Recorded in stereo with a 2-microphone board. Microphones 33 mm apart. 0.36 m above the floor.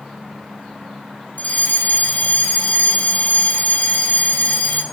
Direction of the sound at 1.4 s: 55° left (ahead or behind).